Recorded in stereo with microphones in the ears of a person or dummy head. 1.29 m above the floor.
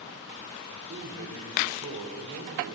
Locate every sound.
0.7 s a man speaking: 85° right, 5 m